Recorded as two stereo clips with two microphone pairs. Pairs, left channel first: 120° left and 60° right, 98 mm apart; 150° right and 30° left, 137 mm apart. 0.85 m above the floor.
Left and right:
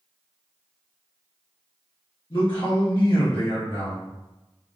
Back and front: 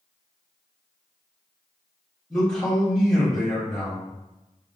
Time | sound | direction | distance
2.3 | a man speaking | 130° left | 1.3 m